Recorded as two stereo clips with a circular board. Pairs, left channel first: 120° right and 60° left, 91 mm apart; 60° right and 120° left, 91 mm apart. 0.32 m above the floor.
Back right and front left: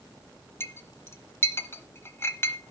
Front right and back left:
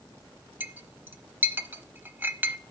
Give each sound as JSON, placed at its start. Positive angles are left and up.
{"t": 0.6, "sound": "a clink", "azimuth_deg": -175, "distance_m": 0.8}